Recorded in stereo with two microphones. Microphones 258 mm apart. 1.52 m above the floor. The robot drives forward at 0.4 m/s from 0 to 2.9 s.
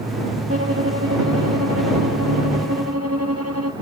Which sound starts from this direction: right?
A violin, at 0.5 s.